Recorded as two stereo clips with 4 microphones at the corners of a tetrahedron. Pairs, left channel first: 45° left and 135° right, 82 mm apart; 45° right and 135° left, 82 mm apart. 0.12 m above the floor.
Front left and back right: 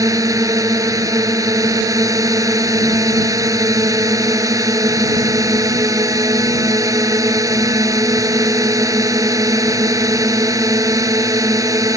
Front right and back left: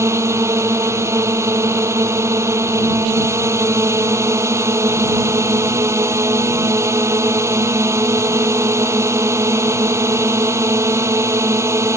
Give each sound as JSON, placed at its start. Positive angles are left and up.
{"t": 0.0, "sound": "a drone", "azimuth_deg": -175}